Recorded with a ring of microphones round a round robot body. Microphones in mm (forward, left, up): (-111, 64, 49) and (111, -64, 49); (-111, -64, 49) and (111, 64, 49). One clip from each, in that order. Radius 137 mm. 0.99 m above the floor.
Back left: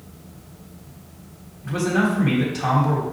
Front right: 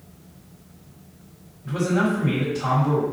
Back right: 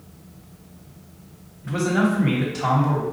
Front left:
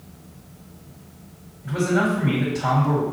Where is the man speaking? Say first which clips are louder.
Back left 1 dB, front left 1 dB; 170° right, 1.5 m.